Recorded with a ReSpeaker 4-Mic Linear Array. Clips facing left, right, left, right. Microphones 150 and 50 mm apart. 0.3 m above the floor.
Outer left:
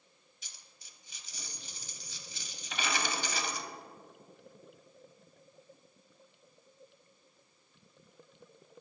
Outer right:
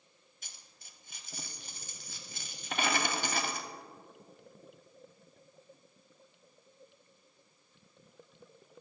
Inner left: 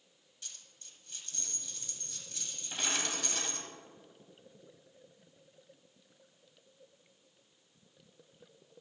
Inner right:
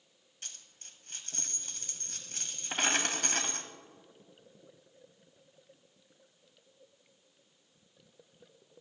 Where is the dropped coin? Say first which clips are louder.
Outer right 2 dB, inner right 3 dB; 50° right (ahead or behind), 0.7 m.